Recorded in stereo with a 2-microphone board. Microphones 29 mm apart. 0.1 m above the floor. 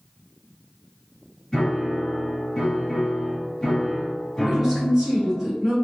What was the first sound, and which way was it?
A piano, 5° left (ahead or behind).